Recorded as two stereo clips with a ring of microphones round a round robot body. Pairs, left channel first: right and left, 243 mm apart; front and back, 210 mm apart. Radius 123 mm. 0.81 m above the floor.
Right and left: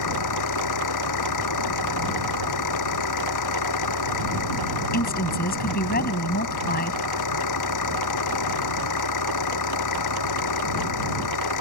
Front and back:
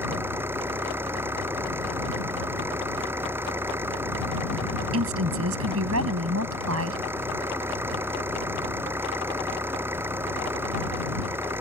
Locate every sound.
0.0 s an engine running: 100° right
4.9 s a woman speaking: 145° right